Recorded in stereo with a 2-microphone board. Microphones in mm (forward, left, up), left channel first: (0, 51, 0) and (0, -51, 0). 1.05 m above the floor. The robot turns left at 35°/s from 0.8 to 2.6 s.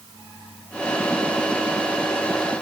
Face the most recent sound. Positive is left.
No sound to turn to.